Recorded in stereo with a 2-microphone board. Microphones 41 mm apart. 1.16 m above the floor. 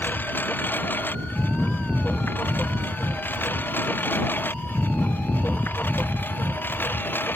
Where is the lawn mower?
50° left (ahead or behind); by 7.4 s 55° left (ahead or behind).